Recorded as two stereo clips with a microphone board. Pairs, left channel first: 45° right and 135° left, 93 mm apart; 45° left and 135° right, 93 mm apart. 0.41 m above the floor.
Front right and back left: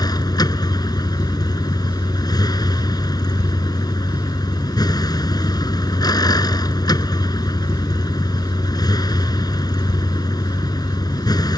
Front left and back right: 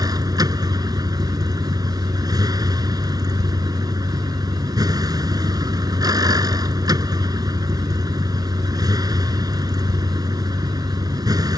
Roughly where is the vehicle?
Right.